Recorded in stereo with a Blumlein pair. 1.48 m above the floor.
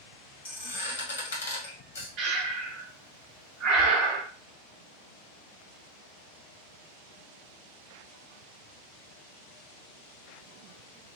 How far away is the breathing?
About 0.6 m.